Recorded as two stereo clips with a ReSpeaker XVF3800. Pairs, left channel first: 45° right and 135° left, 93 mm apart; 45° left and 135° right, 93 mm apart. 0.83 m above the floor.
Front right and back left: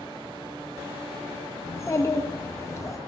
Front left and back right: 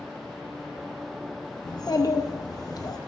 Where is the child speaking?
10° left, 0.5 m.